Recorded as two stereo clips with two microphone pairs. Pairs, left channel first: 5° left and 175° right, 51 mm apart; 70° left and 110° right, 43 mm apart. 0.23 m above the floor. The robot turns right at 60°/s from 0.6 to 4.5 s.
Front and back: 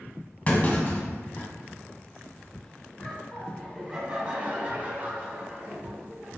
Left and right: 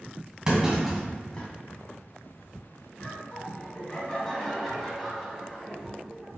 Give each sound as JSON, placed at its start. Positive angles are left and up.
{"t": 0.5, "sound": "a clunk", "azimuth_deg": -45, "distance_m": 1.3}
{"t": 3.0, "sound": "laughter", "azimuth_deg": 55, "distance_m": 1.6}